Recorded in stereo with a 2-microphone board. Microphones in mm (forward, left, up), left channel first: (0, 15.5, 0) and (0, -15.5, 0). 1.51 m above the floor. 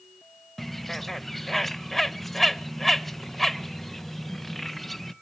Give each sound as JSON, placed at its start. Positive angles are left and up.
{"t": 0.6, "sound": "a bird", "side_deg": 5, "distance_m": 0.7}